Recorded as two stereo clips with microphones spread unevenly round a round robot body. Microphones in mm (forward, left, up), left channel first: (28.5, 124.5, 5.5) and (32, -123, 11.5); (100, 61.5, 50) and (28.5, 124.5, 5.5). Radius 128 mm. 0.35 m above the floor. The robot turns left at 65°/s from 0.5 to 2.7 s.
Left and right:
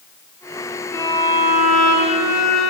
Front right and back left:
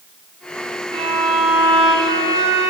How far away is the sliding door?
No sliding door in this recording.